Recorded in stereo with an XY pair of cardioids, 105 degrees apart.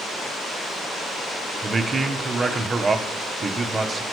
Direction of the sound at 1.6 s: 25° right.